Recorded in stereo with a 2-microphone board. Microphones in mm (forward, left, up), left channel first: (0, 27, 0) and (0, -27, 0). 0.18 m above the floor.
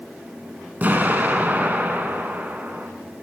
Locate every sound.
0.8 s an explosion: 30° right (ahead or behind), 0.6 m